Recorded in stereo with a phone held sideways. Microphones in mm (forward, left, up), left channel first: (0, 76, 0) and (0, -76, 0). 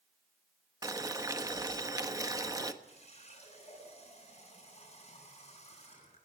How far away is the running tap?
About 9 m.